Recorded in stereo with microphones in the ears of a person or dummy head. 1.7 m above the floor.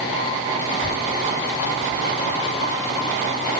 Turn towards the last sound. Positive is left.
turn(degrees=45)  # may be behind; listen again after turning